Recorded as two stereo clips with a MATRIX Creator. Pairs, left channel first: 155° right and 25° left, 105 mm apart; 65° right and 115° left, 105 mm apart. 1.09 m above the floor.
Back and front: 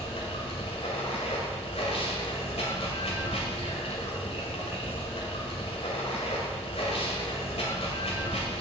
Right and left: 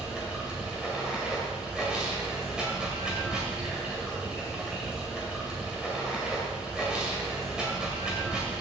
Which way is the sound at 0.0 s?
165° right.